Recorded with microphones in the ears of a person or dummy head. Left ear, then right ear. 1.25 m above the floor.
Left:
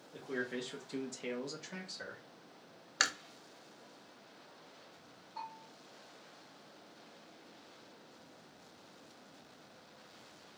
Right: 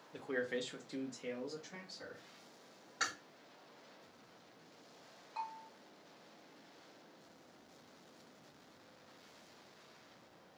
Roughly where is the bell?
Right.